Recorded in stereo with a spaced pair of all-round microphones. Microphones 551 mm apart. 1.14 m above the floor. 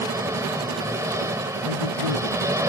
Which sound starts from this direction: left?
A man speaking, at 1.6 s.